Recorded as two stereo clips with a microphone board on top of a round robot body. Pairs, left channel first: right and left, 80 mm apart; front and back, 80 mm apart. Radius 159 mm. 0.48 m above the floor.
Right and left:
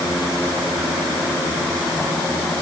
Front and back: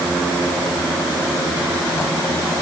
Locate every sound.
Only background noise.